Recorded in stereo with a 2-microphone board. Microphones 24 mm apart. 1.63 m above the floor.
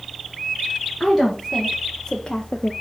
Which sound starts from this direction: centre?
A woman speaking, at 1.0 s.